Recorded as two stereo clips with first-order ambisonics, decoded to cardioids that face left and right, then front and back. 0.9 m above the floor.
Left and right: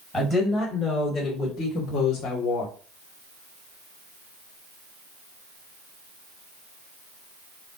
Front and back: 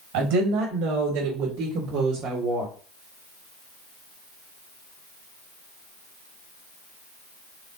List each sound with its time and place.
0.1 s a woman speaking: 170° left, 4 m; by 2.7 s 115° left, 2.0 m